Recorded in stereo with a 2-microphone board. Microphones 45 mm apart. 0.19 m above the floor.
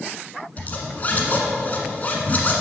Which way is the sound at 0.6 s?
35° left (ahead or behind).